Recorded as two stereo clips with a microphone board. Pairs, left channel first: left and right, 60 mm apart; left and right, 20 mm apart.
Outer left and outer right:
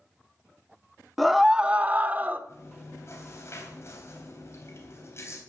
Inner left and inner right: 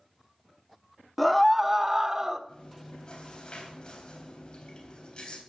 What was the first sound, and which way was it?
A scream, centre (ahead or behind).